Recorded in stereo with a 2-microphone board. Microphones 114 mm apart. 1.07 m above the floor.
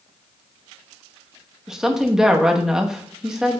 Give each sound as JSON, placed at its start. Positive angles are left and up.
{"t": 1.7, "sound": "a woman speaking", "side_deg": -5, "distance_m": 0.9}